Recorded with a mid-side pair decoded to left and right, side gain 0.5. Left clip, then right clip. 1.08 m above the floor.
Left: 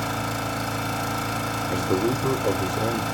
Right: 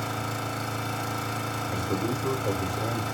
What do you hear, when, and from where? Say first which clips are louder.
0.0 s an engine running: left 4 dB; 40° left, 1.1 m
1.7 s a man speaking: left 7 dB; 55° left, 0.9 m